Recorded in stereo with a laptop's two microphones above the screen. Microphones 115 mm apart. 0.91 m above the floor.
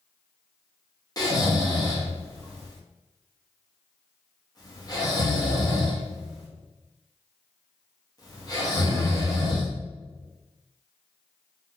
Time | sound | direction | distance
1.2 | snoring | 30° left (ahead or behind) | 0.8 m